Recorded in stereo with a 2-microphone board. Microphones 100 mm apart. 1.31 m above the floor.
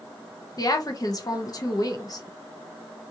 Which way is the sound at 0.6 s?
40° left (ahead or behind).